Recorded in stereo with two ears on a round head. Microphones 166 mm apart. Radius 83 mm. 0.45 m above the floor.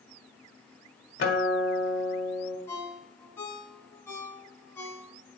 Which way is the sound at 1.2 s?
55° left (ahead or behind).